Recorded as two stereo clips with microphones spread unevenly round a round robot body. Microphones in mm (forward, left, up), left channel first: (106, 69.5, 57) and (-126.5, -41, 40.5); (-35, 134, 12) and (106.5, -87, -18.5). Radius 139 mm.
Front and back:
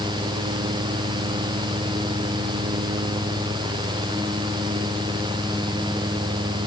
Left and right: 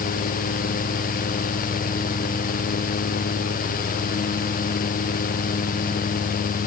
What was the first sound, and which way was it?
Only background noise.